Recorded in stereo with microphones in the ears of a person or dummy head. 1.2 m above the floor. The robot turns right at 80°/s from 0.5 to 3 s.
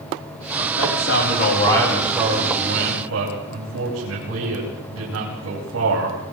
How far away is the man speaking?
About 9.5 m.